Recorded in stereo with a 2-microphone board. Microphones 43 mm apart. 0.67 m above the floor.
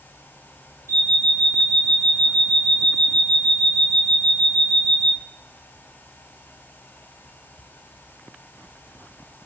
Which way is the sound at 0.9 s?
70° right (ahead or behind).